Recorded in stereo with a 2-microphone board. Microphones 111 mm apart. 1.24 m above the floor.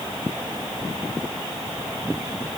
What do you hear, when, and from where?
Only background noise.